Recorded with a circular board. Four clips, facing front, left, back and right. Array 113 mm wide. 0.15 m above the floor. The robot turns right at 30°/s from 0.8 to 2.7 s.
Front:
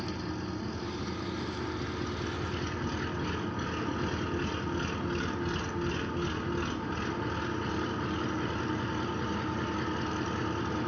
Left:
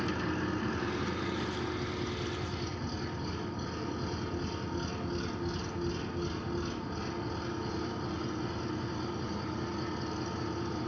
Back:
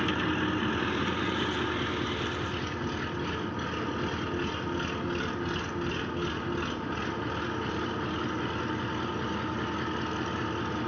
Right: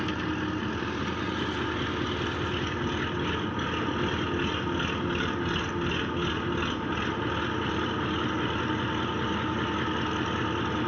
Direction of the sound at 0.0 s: 155° right.